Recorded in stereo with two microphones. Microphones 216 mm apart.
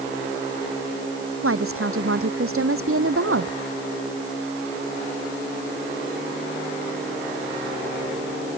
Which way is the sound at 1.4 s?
80° right.